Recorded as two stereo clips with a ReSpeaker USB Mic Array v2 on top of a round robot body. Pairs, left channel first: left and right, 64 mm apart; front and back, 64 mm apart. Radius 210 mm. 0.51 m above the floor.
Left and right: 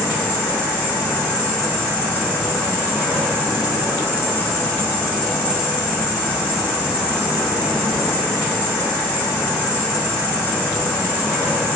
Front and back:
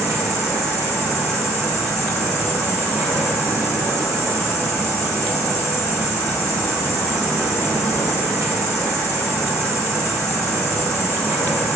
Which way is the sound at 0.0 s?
135° left.